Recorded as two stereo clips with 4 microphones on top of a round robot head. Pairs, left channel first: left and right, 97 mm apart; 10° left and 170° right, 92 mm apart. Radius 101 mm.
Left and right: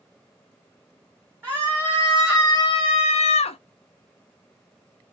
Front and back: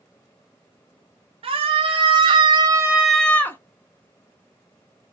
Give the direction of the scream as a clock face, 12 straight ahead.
5 o'clock.